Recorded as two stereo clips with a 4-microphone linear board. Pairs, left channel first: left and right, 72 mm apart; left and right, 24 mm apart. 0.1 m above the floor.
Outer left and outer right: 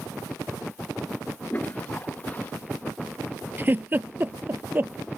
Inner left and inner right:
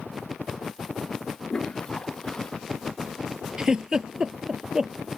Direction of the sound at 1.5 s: 25° left (ahead or behind).